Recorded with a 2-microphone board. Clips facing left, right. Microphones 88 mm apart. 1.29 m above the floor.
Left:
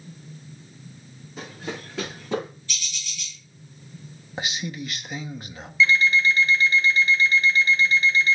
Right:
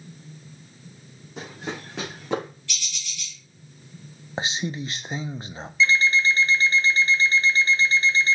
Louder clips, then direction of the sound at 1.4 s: Right 1 dB; 75° right (ahead or behind).